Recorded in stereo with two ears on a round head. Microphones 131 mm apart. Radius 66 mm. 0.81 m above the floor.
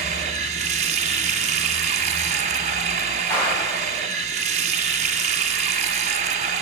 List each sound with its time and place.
0.0 s running water: 50° right (ahead or behind), 1.0 m
3.3 s a clap: 20° left (ahead or behind), 5.5 m